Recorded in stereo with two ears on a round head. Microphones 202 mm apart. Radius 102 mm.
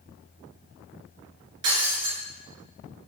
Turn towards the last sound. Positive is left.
turn(degrees=-80)